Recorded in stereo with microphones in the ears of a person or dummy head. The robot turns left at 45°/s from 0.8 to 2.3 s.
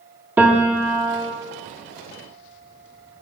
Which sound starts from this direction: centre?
A piano, at 0.4 s.